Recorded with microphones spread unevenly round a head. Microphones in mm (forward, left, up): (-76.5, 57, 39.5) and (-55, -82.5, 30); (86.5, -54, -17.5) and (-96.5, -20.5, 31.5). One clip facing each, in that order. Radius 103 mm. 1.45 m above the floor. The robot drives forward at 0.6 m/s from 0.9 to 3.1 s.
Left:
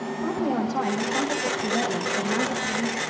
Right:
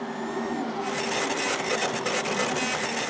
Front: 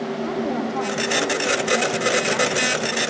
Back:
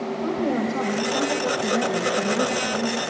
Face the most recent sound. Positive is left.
turn(degrees=130)